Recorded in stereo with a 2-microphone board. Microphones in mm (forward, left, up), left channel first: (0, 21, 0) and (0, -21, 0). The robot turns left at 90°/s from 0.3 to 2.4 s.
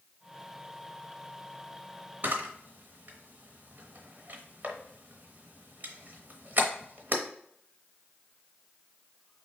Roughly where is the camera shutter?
Right.